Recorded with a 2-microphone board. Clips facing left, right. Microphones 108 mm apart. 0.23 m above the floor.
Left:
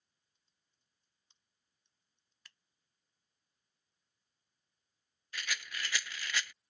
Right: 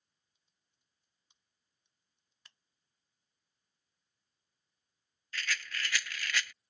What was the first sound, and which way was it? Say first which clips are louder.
Typing on a keyboard: even; 10° right (ahead or behind).